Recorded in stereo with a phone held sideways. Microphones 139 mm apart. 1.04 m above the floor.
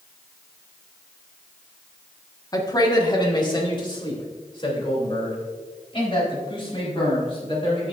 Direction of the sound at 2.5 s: 30° left (ahead or behind).